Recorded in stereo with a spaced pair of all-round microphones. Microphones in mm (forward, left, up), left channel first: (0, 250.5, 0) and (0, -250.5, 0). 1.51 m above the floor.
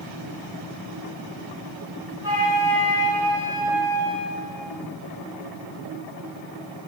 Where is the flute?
35° left (ahead or behind), 1.8 m.